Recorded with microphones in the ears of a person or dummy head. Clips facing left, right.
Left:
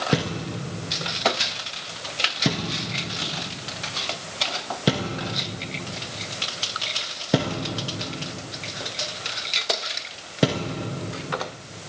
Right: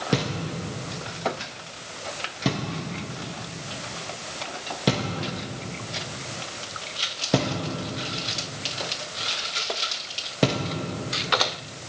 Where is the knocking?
5° left (ahead or behind), 1.1 m.